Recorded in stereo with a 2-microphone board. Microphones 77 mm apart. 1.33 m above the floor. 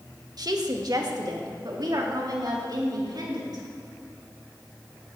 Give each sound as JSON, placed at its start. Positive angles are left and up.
{"t": 0.4, "sound": "a woman speaking", "side_deg": -55, "distance_m": 1.7}